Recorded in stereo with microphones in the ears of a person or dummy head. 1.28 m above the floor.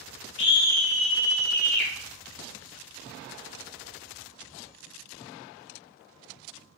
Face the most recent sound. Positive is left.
turn(degrees=5)  # may be behind; listen again after turning